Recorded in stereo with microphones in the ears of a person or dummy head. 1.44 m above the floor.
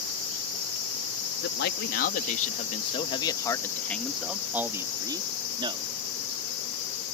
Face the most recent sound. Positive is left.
turn(degrees=-30)  # may be behind; listen again after turning